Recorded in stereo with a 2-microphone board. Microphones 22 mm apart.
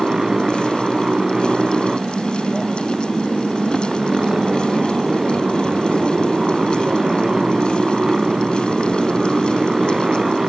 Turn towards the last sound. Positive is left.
turn(degrees=-20)  # may be behind; listen again after turning